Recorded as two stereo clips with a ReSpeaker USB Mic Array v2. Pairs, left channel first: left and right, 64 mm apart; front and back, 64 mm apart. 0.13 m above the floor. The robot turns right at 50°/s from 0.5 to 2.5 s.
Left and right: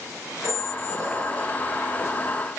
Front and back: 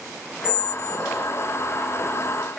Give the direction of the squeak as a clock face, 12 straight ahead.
4 o'clock.